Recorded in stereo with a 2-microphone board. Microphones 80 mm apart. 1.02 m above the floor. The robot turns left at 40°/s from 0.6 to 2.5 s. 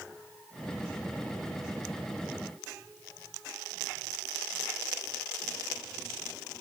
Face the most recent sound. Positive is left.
No sound to turn to.